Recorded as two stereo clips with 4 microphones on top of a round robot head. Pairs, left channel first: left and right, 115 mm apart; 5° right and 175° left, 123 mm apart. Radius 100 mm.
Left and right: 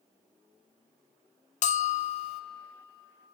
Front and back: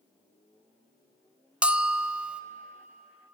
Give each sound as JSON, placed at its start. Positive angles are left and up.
{"t": 1.6, "sound": "a bell", "azimuth_deg": 95, "distance_m": 0.8}